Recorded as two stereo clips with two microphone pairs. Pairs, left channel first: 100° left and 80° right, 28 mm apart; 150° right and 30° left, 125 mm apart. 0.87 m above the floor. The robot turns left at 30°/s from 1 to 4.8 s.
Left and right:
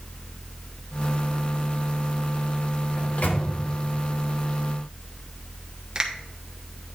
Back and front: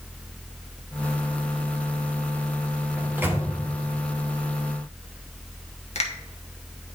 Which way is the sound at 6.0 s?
135° right.